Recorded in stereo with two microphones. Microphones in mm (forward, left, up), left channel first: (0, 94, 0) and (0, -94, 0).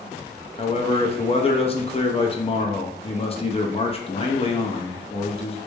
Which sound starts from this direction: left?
A man speaking, at 0.6 s.